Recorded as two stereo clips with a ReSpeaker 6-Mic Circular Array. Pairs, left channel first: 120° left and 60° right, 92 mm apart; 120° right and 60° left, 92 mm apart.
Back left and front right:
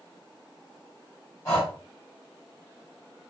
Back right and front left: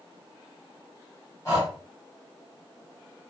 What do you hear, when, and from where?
1.4 s breathing: straight behind, 2 m